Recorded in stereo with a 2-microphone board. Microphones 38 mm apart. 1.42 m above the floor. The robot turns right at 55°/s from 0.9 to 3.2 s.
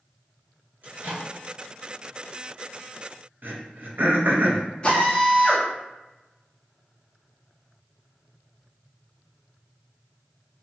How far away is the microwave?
About 1.4 m.